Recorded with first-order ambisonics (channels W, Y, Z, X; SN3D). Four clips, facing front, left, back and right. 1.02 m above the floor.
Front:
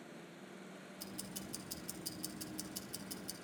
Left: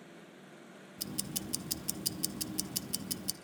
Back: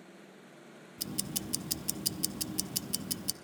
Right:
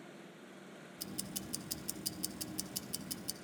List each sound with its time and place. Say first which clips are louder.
1.0 s ticking: left 5 dB, back 11 dB; 155° left, 0.5 m